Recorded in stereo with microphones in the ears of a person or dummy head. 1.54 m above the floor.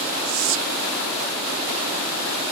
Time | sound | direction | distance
0.2 | whispering | 65° right (ahead or behind) | 0.9 m